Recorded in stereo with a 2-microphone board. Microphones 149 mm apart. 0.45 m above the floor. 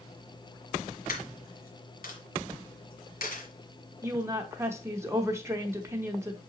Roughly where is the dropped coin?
Left.